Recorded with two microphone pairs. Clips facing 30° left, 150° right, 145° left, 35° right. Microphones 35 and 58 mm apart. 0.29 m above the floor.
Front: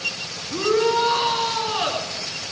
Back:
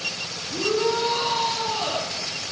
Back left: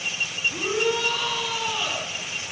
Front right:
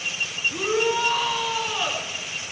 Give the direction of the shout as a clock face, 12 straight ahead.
11 o'clock.